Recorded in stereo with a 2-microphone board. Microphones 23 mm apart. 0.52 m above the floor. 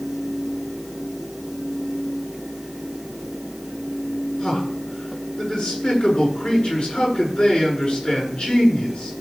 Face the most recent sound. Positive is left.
turn(degrees=55)  # may be behind; listen again after turning